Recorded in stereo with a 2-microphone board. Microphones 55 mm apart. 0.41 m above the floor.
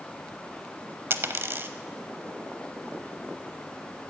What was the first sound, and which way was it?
A dropped coin, 45° right (ahead or behind).